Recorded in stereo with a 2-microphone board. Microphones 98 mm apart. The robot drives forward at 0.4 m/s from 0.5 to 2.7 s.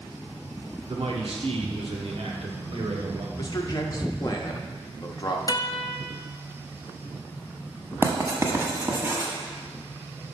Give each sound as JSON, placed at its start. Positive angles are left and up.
{"t": 0.9, "sound": "a man speaking", "side_deg": -75, "distance_m": 1.1}
{"t": 3.4, "sound": "a man speaking", "side_deg": 45, "distance_m": 0.9}
{"t": 5.5, "sound": "a guitar", "side_deg": 40, "distance_m": 0.6}
{"t": 8.0, "sound": "writing", "side_deg": -25, "distance_m": 1.0}